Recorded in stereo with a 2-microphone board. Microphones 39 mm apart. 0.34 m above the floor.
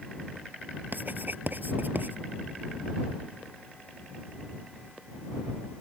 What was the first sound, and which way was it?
Writing, 55° right (ahead or behind).